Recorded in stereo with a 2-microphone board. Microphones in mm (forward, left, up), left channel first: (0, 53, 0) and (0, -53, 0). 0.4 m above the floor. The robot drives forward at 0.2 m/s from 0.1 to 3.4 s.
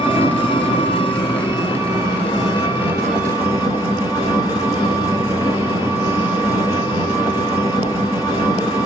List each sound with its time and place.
0.0 s an engine running: 55° left (ahead or behind), 1.2 m; by 8.9 s 35° left (ahead or behind), 1.6 m